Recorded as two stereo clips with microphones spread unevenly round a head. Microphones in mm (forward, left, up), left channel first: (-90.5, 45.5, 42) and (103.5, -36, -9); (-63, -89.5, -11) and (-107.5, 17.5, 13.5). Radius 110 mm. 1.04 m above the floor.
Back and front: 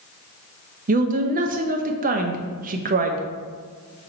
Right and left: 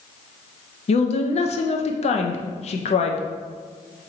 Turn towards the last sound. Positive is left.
turn(degrees=-65)